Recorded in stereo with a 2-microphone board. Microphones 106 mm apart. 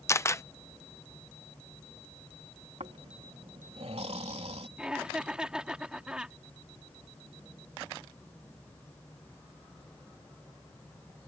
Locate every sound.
0.1 s a camera shutter: 25° left (ahead or behind)
2.8 s snoring: 80° right
4.8 s laughter: 10° right (ahead or behind)